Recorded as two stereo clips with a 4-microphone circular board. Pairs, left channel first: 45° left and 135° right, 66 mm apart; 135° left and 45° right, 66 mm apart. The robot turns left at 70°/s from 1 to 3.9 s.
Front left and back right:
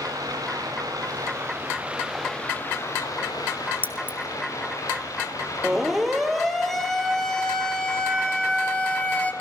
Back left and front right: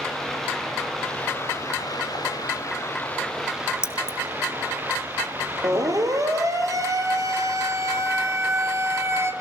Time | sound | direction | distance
0.0 | running water | 140° right | 7.5 m
3.8 | keys jangling | 100° left | 1.7 m
5.6 | a siren | 45° right | 4 m